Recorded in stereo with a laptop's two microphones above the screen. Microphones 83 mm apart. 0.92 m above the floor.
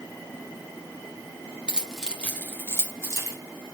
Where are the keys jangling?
15° right (ahead or behind), 0.8 m; by 3.4 s 40° left (ahead or behind), 1.6 m.